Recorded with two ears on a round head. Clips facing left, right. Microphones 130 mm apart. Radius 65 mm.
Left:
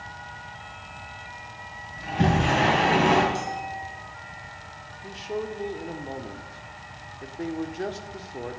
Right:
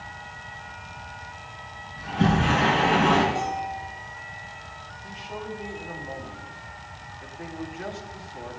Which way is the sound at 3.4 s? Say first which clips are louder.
Right 3 dB; 55° left (ahead or behind).